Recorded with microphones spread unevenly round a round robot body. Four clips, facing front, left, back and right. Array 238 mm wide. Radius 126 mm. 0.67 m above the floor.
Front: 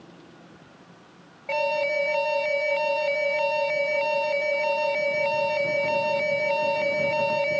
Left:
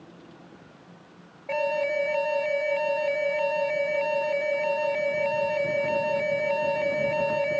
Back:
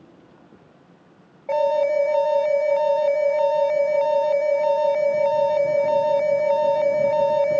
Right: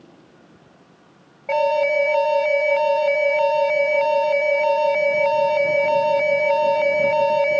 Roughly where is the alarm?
Behind right.